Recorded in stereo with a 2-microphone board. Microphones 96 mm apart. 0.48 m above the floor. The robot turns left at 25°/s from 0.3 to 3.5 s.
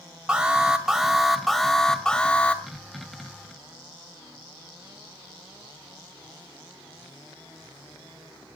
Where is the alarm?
10° right (ahead or behind), 2.0 m; by 2.6 s 15° left (ahead or behind), 2.0 m.